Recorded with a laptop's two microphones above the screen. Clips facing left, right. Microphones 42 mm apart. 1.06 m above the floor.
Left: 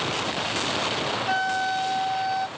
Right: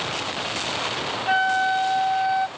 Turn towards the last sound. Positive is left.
turn(degrees=-20)  # may be behind; listen again after turning